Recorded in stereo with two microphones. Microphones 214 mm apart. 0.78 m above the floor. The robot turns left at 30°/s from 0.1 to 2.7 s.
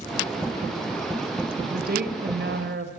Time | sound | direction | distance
1.7 | a woman speaking | 45° right | 3 m